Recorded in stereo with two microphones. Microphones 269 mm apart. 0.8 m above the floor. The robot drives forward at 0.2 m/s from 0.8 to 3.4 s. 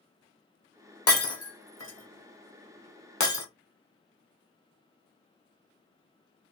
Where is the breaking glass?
60° left (ahead or behind), 1.0 m; by 3.5 s 85° left, 0.9 m.